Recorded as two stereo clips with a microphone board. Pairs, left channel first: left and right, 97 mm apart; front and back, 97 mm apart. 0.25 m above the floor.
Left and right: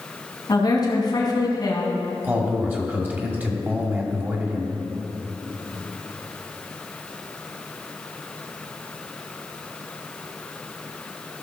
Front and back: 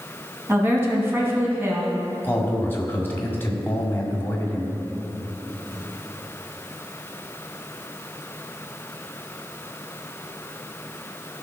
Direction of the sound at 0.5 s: 120° left.